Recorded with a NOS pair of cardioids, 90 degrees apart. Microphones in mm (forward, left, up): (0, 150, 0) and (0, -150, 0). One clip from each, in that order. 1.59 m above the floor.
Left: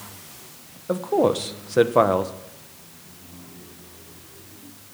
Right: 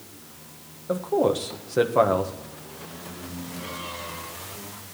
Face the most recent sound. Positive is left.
turn(degrees=20)